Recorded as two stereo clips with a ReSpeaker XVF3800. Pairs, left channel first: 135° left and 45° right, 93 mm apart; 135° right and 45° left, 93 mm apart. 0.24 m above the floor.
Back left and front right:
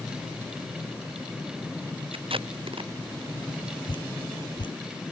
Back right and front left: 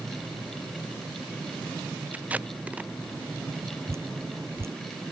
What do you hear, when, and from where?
2.1 s tape being pulled: 30° right
3.9 s dripping: 105° left